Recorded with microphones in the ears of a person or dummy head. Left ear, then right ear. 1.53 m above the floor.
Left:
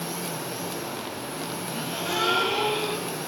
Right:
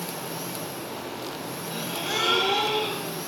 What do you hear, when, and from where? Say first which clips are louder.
1.7 s a gasp: right 1 dB; 20° right (ahead or behind), 2.0 m